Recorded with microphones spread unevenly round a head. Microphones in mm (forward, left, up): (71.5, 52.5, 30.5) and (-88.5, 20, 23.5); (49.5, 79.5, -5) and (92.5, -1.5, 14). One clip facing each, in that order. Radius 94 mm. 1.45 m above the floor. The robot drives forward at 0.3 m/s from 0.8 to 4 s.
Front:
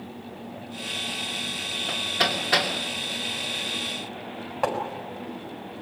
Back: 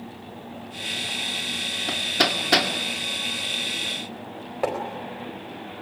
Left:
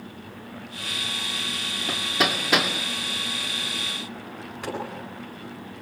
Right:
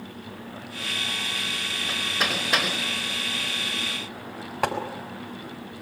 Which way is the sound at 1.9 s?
150° left.